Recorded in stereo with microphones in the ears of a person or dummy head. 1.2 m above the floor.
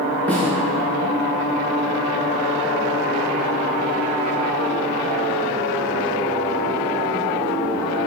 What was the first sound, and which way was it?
A snare drum, 5° left (ahead or behind).